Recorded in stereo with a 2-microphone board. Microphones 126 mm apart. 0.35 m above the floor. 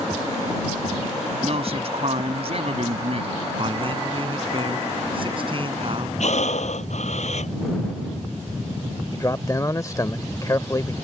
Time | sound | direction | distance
1.4 | a man speaking | 55° right (ahead or behind) | ?
3.6 | a man speaking | 45° right (ahead or behind) | ?
6.2 | breathing | 65° left (ahead or behind) | ?
9.1 | a man speaking | 25° left (ahead or behind) | ?